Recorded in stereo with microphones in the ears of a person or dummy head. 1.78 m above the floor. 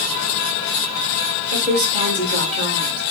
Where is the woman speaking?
30° right (ahead or behind), 1.5 m.